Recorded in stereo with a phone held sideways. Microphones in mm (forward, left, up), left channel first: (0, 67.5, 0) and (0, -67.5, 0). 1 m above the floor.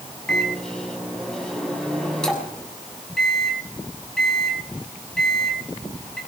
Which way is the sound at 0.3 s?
5° left (ahead or behind).